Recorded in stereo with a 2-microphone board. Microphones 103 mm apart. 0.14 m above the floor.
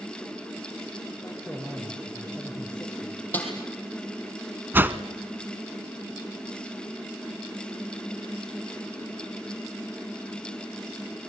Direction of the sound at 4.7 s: 20° right (ahead or behind).